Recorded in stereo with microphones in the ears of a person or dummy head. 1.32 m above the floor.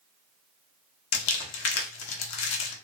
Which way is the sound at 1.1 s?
75° left (ahead or behind).